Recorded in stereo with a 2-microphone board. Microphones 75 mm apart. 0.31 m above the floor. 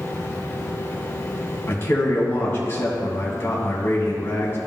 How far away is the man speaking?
About 2 m.